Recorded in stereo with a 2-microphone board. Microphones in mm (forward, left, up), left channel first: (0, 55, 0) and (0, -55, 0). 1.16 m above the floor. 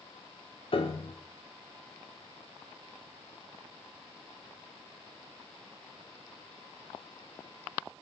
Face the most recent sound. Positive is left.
turn(degrees=55)  # may be behind; listen again after turning